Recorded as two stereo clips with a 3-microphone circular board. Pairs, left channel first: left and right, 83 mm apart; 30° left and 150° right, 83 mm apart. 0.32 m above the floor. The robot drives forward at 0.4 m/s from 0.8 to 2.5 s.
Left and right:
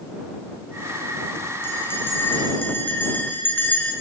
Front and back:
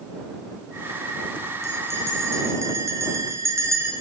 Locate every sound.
1.6 s a bell: 155° left, 3.5 m